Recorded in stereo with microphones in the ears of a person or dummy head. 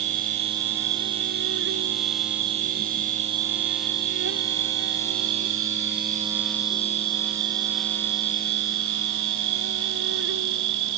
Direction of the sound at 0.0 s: 65° right (ahead or behind).